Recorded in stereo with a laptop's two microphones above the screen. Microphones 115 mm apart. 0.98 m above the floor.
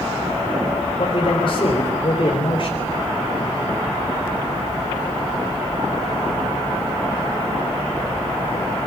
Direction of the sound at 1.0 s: 50° left (ahead or behind).